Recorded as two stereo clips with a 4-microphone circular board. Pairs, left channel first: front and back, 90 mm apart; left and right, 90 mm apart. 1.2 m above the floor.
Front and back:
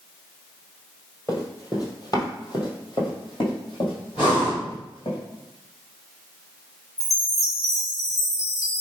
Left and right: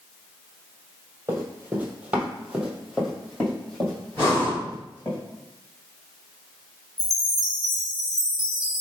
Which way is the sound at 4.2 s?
30° left.